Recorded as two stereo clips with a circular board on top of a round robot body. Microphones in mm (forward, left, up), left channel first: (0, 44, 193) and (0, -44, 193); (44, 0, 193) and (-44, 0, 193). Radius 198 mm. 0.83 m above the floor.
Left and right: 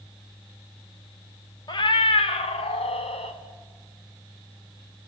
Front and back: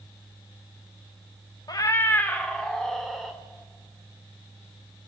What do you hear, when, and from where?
1.7 s a cat meowing: 45° left, 0.5 m; by 3.4 s 90° left, 1.4 m